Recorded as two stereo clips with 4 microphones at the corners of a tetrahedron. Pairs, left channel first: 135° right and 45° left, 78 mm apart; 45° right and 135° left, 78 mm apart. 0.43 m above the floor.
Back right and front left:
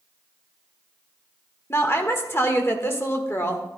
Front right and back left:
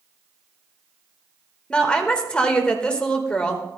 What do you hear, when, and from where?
1.7 s a woman speaking: 115° right, 1.3 m